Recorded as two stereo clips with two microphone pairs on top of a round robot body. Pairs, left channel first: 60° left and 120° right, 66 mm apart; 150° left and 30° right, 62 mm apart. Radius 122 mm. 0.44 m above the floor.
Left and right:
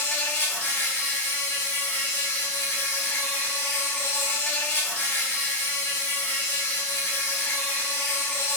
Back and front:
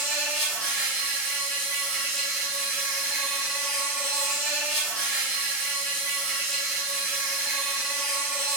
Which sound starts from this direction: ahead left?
An insect, at 0.0 s.